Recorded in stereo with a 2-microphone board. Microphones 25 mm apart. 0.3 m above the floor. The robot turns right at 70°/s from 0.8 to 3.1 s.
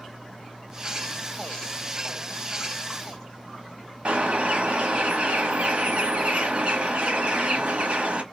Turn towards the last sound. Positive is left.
turn(degrees=-55)  # may be behind; listen again after turning